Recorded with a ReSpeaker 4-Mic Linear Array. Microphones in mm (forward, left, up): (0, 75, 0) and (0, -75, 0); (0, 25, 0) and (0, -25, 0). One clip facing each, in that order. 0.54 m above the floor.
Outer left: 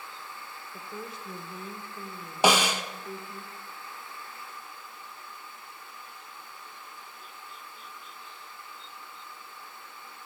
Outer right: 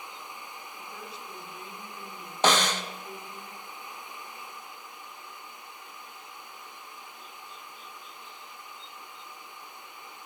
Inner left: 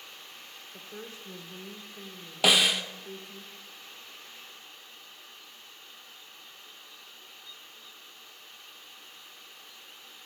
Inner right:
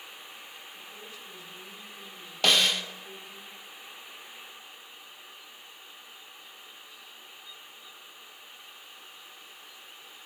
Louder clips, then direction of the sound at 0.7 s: Outer left 6 dB, inner left 2 dB; 55° left (ahead or behind).